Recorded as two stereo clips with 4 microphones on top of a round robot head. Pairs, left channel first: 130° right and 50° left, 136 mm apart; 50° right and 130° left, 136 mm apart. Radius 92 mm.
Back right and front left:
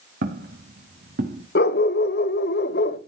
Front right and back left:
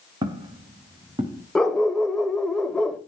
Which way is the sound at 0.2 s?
70° left.